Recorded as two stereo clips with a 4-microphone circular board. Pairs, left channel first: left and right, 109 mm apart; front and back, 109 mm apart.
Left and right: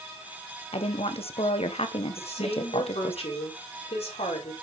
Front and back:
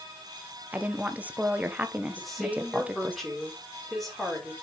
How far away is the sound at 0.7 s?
About 1.4 m.